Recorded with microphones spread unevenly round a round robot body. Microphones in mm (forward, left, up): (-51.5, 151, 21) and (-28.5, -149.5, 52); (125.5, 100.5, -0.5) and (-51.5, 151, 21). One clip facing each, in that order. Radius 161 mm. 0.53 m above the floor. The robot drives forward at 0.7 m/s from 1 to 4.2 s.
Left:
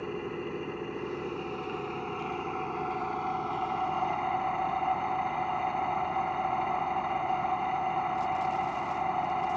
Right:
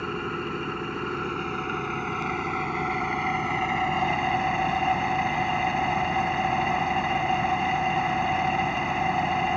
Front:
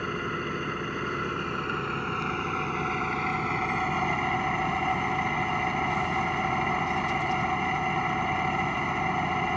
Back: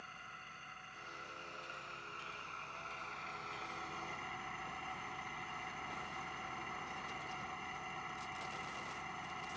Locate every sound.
0.0 s an engine running: 25° right; by 9.6 s 40° right